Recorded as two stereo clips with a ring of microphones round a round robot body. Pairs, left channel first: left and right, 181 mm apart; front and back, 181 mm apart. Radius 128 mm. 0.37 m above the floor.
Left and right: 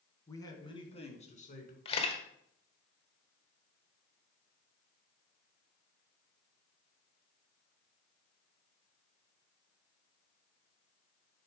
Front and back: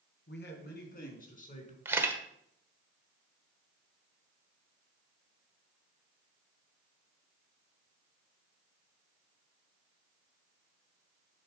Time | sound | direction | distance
0.3 | a man speaking | 15° left | 3 m
1.9 | a camera shutter | 115° left | 1.3 m